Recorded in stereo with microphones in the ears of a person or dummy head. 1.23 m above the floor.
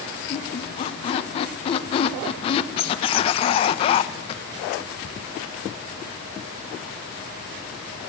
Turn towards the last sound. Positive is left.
turn(degrees=30)  # may be behind; listen again after turning